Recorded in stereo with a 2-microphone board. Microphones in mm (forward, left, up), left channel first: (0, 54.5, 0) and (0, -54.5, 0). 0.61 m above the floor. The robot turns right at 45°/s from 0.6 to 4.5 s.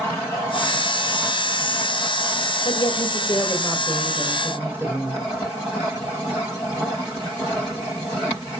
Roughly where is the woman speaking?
Behind left.